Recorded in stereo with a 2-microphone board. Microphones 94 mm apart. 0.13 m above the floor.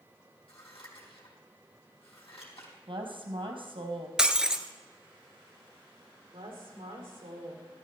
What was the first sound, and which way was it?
Scissors, 70° left (ahead or behind).